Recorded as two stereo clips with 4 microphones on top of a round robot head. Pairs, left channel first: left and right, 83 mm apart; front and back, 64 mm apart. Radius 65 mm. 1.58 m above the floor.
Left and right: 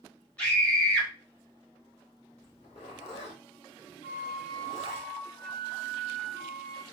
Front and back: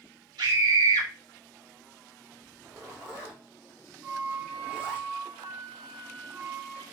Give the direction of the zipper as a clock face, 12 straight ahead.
8 o'clock.